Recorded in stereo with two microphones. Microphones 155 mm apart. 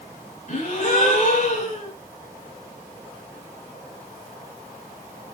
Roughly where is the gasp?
Left.